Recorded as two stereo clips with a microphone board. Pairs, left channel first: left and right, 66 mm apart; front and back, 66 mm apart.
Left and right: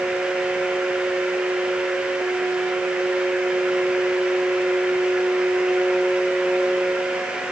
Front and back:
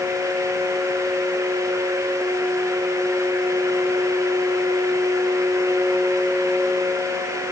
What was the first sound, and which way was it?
Only background noise.